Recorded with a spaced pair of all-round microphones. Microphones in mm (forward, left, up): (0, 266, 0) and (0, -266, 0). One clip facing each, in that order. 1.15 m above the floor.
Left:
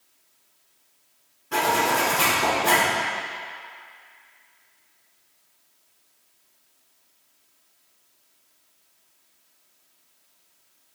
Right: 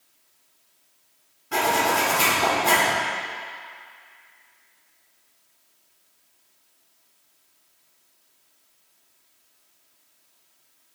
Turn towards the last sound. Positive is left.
turn(degrees=-5)  # may be behind; listen again after turning